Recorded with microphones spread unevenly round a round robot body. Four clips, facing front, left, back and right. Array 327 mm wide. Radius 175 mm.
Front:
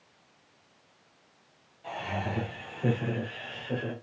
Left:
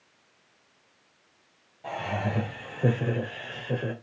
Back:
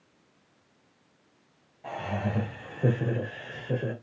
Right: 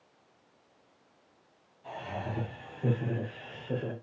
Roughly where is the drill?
I don't hear a drill.